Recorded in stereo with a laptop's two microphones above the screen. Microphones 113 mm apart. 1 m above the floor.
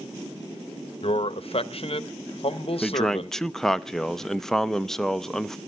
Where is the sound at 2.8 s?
5° left (ahead or behind), 0.7 m.